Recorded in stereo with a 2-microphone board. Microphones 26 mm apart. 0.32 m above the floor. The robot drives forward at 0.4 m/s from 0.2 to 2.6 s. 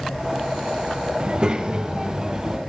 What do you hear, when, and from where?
1.2 s a child speaking: 35° right (ahead or behind), 0.9 m; by 2.6 s 25° right (ahead or behind), 1.3 m